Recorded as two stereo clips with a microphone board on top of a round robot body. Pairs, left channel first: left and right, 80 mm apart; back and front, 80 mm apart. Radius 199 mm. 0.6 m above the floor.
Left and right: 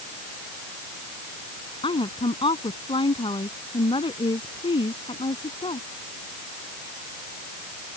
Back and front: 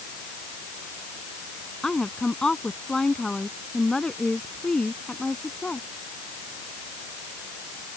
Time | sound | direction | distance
1.8 | a woman speaking | 100° left | ?